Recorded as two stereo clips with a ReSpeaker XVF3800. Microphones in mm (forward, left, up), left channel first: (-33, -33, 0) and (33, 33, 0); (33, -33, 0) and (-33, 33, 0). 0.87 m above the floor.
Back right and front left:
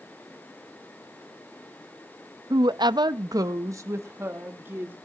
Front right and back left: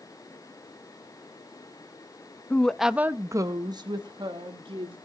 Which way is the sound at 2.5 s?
20° left.